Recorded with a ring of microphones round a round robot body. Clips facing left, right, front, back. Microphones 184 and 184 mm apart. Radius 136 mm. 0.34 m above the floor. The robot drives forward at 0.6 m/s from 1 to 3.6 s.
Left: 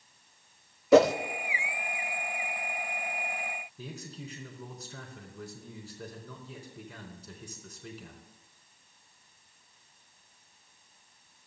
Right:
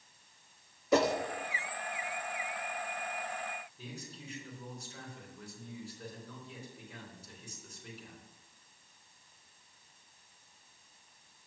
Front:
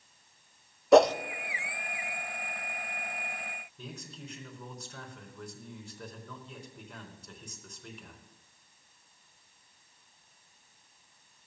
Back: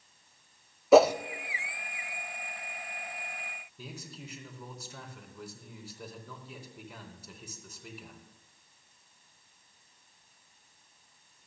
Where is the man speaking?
100° left, 4 m.